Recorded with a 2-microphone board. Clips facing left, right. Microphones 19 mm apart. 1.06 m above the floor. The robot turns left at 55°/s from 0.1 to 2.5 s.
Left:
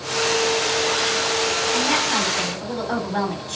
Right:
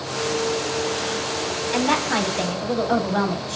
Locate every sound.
1.7 s a woman speaking: 150° right, 3.5 m; by 3.6 s 165° left, 3.5 m